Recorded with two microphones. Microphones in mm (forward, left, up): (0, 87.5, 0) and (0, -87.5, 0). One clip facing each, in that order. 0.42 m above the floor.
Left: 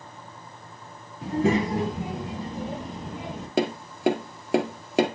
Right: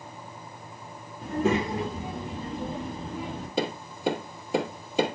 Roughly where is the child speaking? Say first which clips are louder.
Left 2 dB; left.